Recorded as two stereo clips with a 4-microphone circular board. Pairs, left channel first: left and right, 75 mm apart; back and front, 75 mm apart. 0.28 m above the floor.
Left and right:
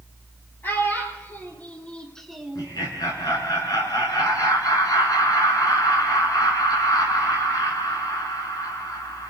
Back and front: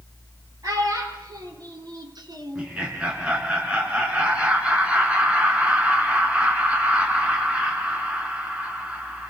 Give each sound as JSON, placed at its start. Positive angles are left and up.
{"t": 0.6, "sound": "a child speaking", "azimuth_deg": 30, "distance_m": 3.5}
{"t": 2.5, "sound": "laughter", "azimuth_deg": 70, "distance_m": 3.0}